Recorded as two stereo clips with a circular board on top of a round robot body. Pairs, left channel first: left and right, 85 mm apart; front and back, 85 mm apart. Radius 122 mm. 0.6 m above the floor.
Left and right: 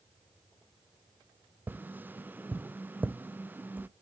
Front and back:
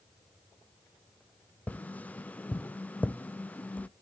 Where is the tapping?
50° right, 0.7 m.